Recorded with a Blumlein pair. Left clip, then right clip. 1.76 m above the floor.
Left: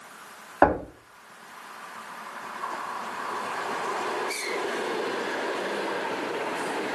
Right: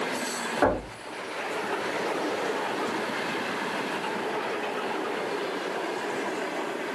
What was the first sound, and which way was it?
Knocking, 25° left.